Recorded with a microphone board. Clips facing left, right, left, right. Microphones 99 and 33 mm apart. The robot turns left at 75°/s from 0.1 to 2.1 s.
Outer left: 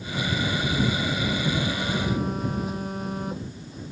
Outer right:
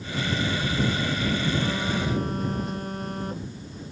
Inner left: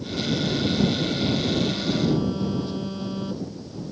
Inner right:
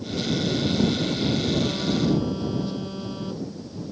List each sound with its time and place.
1.6 s a phone buzzing: 145° right; by 3.9 s 175° left